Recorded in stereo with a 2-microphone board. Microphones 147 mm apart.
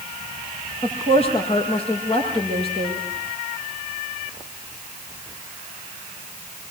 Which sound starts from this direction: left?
A woman speaking, at 0.8 s.